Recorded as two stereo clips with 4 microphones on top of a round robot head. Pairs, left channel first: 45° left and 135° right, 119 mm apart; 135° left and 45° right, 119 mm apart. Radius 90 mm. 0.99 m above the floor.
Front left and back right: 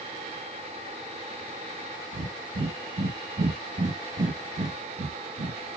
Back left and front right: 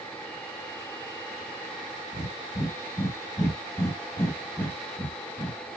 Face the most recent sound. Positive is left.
turn(degrees=-160)